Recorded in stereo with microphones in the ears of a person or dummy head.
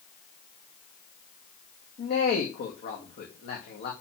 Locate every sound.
2.0 s a man speaking: 50° left (ahead or behind), 2 m